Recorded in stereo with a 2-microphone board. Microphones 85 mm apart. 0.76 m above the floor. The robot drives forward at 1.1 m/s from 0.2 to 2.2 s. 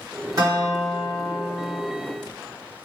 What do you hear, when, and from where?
0.4 s a guitar: 40° right (ahead or behind), 1.4 m; by 1.8 s 25° right (ahead or behind), 2.5 m